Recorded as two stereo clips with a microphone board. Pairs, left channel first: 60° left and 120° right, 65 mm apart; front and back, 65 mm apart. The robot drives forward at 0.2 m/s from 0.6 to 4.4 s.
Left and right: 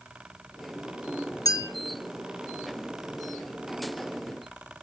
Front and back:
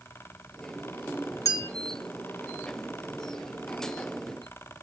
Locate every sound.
1.4 s a clink: 40° left, 0.9 m; by 1.7 s 45° left, 0.9 m